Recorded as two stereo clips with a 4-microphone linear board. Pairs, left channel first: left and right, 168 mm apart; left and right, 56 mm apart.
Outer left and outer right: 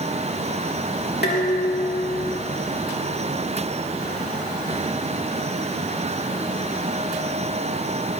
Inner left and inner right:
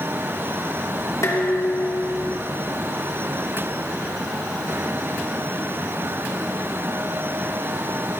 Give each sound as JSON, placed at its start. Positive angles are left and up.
{"t": 1.2, "sound": "dishes clattering", "side_deg": 75, "distance_m": 3.0}